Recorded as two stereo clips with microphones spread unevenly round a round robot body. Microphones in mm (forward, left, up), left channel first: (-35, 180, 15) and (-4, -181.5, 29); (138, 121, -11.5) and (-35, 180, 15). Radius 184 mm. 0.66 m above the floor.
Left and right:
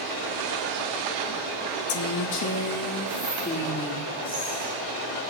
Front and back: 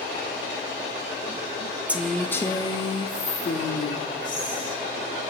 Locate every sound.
1.9 s a woman speaking: 70° left, 0.7 m; by 4.8 s 20° left, 1.8 m